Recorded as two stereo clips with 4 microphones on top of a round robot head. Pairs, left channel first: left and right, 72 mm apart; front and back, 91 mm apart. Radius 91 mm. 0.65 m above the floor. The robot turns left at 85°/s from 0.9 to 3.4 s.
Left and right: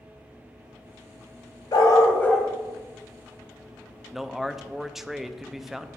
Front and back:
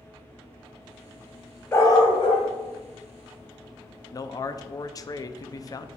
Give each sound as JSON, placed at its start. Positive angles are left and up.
{"t": 1.7, "sound": "a dog barking", "azimuth_deg": 65, "distance_m": 1.5}
{"t": 4.1, "sound": "a man speaking", "azimuth_deg": -5, "distance_m": 0.6}